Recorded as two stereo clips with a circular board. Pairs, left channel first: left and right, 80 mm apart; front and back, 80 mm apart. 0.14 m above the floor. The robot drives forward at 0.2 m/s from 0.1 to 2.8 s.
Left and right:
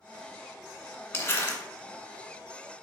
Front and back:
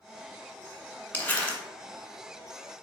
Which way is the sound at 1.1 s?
50° left.